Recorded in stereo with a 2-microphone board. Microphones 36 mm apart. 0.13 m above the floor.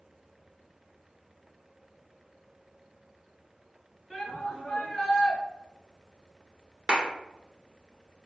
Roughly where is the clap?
Right.